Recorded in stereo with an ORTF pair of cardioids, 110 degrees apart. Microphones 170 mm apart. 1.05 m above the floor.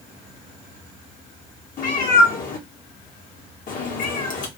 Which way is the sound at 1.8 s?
55° left.